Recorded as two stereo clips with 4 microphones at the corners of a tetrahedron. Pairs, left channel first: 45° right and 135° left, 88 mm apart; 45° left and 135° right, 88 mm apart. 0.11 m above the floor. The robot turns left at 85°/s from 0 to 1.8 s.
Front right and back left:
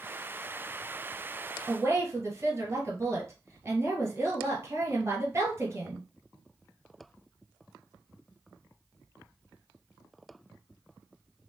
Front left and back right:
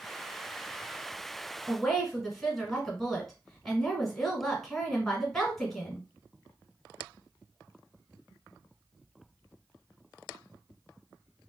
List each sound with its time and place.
1.7 s a woman speaking: 140° left, 1.3 m; by 6.0 s 130° left, 1.3 m